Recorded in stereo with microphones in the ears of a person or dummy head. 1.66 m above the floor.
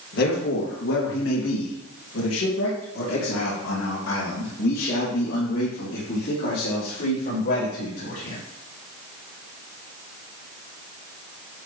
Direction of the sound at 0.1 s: 65° left (ahead or behind).